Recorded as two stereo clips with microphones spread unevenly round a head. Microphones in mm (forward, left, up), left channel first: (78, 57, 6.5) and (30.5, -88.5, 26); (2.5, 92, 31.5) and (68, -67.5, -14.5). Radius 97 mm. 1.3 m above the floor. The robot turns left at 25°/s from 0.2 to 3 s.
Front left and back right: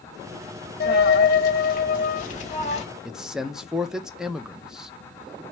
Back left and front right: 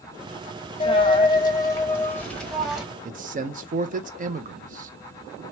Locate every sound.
0.8 s a dropped coin: 80° left, 1.1 m; by 2.8 s 30° left, 1.1 m
3.0 s a man speaking: 20° right, 0.7 m